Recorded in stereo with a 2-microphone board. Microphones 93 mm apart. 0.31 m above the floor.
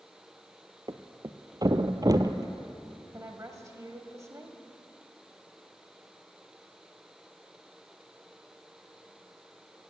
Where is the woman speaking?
35° right (ahead or behind), 1.3 m.